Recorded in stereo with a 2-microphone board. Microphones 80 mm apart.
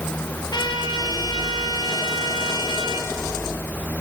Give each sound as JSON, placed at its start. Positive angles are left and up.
{"t": 0.5, "sound": "a trumpet", "side_deg": 65, "distance_m": 3.5}